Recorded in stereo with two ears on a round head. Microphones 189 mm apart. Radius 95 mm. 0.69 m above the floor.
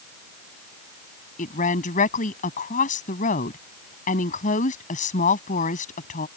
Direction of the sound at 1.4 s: 40° left (ahead or behind).